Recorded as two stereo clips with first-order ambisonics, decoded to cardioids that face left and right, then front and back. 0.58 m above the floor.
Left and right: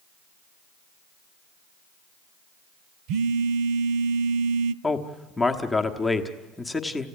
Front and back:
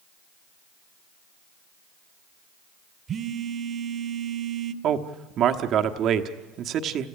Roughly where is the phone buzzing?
Behind right.